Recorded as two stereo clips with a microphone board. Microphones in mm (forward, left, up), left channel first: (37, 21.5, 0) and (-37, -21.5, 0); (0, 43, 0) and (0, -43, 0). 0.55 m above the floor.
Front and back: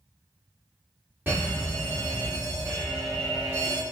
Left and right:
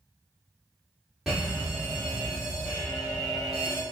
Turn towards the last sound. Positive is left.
turn(degrees=-170)